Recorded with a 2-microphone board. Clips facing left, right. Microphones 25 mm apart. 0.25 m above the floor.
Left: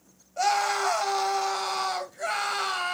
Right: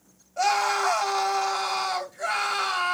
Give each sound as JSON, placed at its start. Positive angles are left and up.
{"t": 0.4, "sound": "a scream", "side_deg": 0, "distance_m": 1.0}